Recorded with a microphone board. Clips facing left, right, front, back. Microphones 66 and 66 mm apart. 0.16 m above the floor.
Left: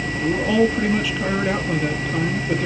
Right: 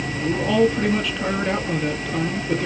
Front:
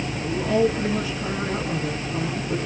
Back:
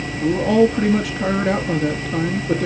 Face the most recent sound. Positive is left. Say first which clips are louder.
# even, back 6 dB
turn(degrees=175)